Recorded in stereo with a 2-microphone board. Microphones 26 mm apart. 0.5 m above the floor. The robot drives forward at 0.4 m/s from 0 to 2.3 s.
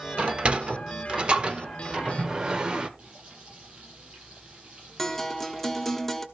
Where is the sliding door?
50° right (ahead or behind), 1.1 m; by 2.9 s 35° right (ahead or behind), 1.3 m.